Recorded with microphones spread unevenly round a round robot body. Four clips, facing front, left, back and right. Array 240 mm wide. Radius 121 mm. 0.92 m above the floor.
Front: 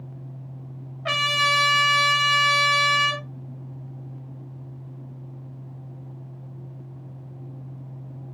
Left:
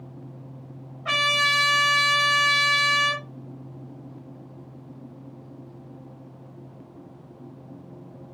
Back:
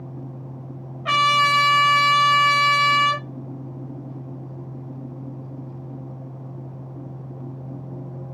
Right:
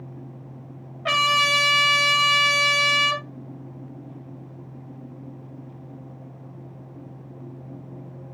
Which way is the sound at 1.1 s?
70° right.